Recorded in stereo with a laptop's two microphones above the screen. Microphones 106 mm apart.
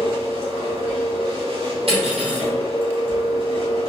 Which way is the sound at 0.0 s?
65° right (ahead or behind).